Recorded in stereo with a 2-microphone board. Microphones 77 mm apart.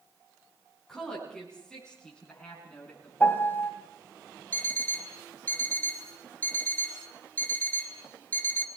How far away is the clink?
I don't hear a clink.